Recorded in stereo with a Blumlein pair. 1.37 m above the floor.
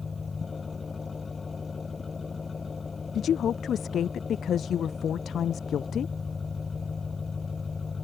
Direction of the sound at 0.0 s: 15° left.